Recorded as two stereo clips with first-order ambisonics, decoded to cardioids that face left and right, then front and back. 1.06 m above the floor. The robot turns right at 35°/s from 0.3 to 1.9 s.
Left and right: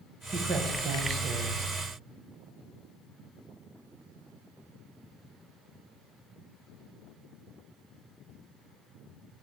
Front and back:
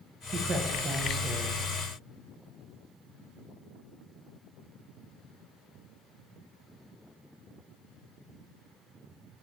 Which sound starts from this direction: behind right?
A man speaking, at 0.3 s.